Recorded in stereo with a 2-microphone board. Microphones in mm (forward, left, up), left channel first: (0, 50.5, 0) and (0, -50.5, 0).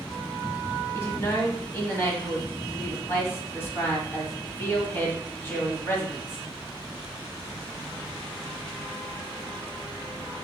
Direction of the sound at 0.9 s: 25° left (ahead or behind).